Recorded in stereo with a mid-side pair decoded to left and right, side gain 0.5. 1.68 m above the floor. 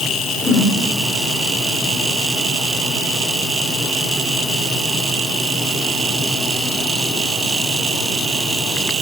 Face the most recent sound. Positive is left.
turn(degrees=15)